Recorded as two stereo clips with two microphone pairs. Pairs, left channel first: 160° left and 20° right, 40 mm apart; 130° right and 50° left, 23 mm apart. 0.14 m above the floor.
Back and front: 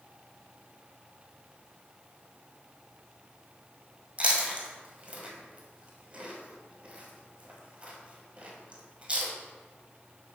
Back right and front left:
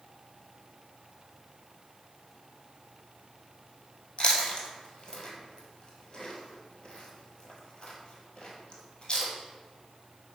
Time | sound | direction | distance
4.2 | chewing | 80° right | 1.2 m